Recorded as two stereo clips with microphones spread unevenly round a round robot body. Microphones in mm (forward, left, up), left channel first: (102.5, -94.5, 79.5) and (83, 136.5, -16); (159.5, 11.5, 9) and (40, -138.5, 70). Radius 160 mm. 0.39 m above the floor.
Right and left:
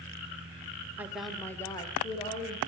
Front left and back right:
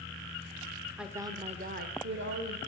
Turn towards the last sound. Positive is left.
turn(degrees=-165)